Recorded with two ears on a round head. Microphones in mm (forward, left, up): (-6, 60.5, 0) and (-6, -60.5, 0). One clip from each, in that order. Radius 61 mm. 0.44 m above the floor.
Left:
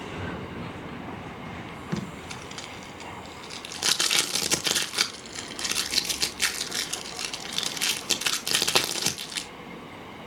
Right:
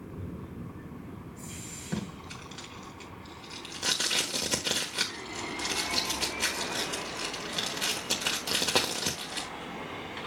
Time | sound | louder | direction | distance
1.9 | tape being pulled | left 3 dB | 40° left (ahead or behind) | 1.0 m